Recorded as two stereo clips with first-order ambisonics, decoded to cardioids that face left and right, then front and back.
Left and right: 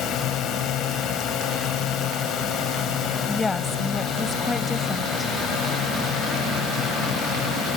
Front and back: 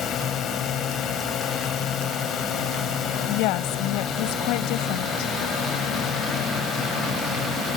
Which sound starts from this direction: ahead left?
A drone, at 0.0 s.